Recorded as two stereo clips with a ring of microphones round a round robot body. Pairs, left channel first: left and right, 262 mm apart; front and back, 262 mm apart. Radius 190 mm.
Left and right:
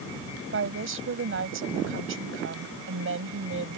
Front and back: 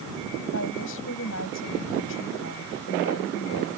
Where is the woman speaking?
55° right.